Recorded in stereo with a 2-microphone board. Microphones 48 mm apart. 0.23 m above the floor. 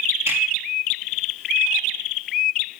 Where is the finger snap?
75° right (ahead or behind), 3.5 m.